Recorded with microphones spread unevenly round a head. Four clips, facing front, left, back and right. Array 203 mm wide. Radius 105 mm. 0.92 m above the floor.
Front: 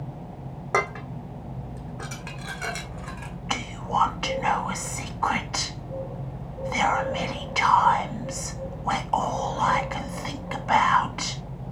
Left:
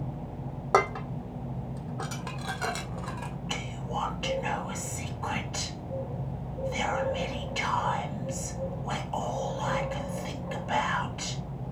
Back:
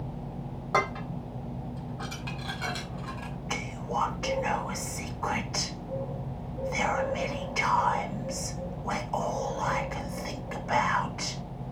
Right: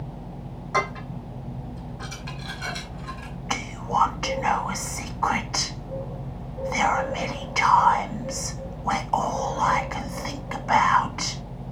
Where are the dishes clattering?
65° left, 2 m.